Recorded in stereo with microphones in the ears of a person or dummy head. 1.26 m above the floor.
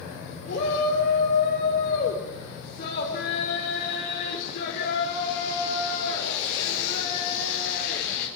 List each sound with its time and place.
0.5 s a shout: 50° left (ahead or behind), 4.5 m